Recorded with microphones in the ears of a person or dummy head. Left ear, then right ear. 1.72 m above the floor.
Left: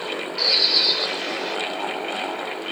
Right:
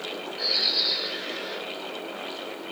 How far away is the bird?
About 3.5 m.